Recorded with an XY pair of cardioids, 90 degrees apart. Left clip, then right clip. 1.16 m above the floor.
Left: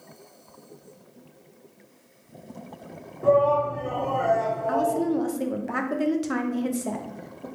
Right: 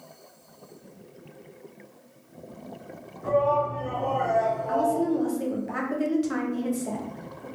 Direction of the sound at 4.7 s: 40° left.